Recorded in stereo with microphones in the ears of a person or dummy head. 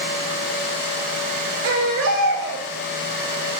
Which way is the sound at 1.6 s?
75° right (ahead or behind).